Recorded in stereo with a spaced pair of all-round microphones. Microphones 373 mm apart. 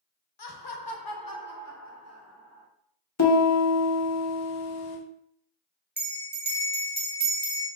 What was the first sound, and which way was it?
Laughter, 75° left (ahead or behind).